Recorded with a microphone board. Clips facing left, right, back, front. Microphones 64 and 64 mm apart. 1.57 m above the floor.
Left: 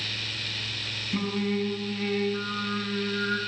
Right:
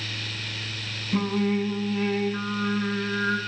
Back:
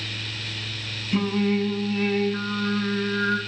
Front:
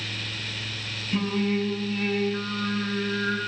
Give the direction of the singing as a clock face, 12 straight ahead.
3 o'clock.